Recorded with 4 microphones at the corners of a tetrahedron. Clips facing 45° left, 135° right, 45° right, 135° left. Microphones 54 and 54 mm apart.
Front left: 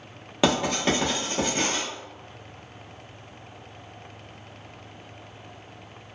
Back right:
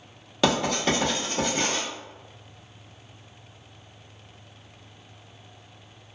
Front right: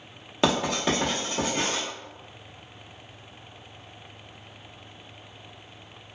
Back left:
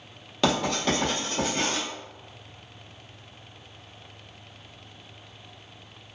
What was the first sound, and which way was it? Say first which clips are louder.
Writing: even, even; straight ahead.